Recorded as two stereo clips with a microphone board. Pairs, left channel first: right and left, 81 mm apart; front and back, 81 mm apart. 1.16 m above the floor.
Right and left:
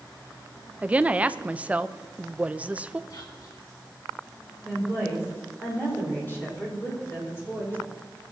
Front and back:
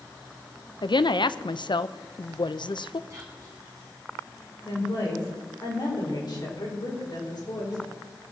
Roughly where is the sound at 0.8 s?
Ahead.